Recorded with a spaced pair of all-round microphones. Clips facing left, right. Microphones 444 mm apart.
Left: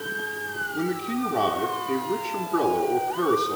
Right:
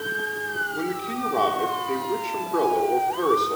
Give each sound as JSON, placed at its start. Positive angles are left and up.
{"t": 0.7, "sound": "a man speaking", "side_deg": 30, "distance_m": 5.0}